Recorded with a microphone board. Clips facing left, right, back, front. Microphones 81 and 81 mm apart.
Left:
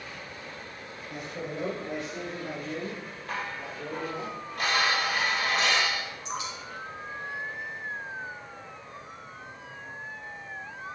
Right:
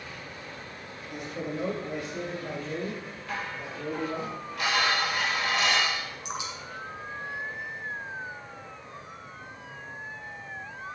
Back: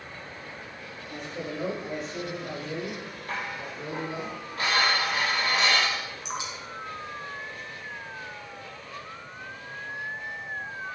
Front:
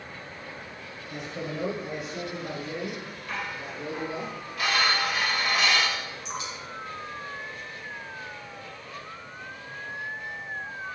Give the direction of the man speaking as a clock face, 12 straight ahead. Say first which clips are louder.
Right 2 dB, front 1 dB; 10 o'clock.